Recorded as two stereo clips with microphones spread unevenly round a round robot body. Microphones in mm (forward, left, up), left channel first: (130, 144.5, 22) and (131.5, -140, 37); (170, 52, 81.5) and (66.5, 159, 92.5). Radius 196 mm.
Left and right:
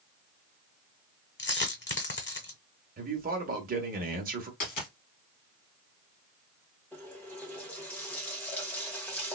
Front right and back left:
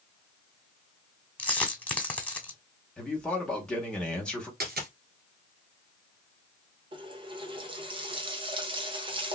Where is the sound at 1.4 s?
35° left, 1.1 m.